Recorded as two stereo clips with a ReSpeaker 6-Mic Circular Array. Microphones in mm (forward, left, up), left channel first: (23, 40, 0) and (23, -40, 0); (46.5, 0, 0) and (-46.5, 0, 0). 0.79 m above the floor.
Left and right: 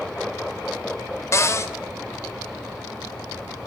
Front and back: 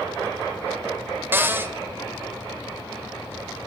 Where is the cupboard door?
120° left, 0.5 m.